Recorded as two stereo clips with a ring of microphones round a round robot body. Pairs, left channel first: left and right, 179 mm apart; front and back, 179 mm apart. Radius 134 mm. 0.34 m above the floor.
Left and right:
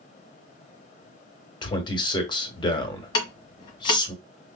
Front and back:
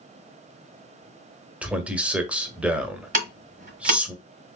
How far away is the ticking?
About 1.3 m.